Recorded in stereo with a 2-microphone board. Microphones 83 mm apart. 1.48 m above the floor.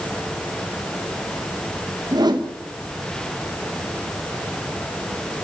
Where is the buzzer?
I don't hear a buzzer.